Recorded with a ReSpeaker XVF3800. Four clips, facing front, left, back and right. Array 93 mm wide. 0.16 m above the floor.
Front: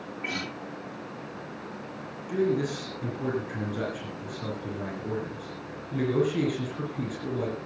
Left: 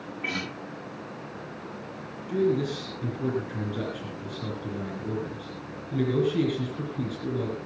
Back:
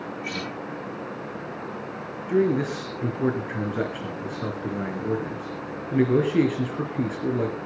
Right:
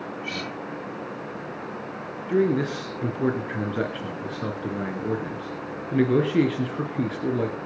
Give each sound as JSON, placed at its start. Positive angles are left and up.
{"t": 0.2, "sound": "a guitar", "azimuth_deg": 60, "distance_m": 8.5}
{"t": 2.3, "sound": "a man speaking", "azimuth_deg": -125, "distance_m": 2.5}